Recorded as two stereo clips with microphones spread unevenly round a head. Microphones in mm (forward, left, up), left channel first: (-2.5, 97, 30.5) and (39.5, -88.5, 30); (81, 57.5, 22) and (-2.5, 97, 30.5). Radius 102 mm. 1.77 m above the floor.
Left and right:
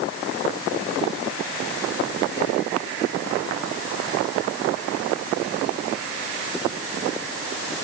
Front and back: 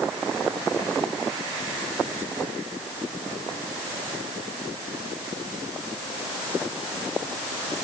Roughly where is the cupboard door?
I don't hear a cupboard door.